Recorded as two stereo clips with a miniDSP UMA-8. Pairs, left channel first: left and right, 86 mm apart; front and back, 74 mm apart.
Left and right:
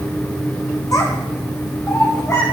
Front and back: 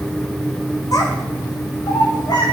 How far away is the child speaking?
About 6 m.